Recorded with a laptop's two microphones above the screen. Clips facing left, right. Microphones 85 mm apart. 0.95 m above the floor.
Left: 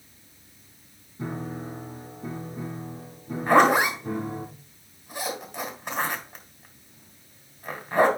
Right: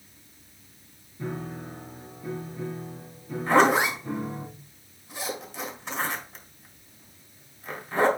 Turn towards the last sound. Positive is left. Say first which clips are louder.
# left 2 dB
turn(degrees=55)  # may be behind; listen again after turning